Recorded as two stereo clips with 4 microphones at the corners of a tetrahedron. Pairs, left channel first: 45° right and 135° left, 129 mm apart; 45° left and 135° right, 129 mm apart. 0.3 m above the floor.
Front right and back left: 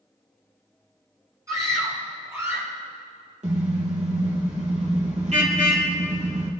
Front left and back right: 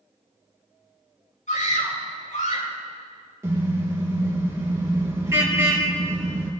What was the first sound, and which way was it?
A scream, 65° left.